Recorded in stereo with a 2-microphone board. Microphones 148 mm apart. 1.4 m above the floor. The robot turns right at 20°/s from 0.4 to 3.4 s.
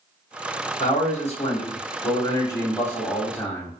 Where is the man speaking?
125° left, 1.3 m; by 3.7 s 175° left, 1.3 m.